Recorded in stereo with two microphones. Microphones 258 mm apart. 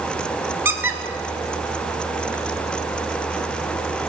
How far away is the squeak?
About 0.7 m.